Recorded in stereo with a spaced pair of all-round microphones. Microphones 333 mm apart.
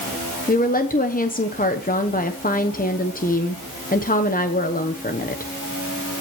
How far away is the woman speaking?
About 0.9 m.